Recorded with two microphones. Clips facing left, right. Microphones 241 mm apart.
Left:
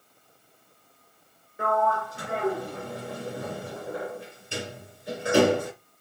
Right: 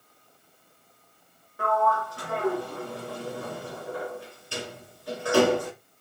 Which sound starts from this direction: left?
A sliding door, at 1.6 s.